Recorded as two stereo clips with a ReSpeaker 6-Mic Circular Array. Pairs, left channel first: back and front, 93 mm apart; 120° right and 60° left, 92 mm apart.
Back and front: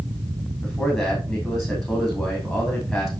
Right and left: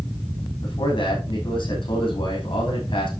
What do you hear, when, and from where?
0.6 s a man speaking: 90° right, 5.5 m